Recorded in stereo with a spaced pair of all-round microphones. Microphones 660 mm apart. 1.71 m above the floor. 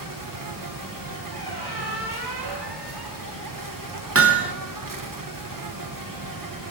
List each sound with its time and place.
0.0 s an insect: 30° right (ahead or behind), 0.9 m
1.3 s a squeak: 35° right (ahead or behind), 1.8 m
4.2 s hammering: 20° right (ahead or behind), 0.9 m